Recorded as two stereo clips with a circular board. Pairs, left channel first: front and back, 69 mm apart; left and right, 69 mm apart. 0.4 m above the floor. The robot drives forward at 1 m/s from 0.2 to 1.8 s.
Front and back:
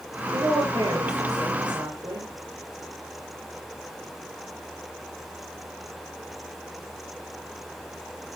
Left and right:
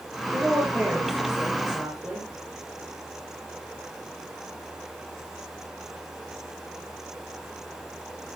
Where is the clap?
No clap in this recording.